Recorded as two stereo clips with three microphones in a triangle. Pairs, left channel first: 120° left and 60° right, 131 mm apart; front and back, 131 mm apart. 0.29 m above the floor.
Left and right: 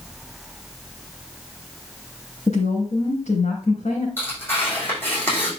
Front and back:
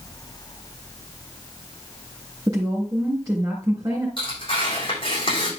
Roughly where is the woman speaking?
Behind left.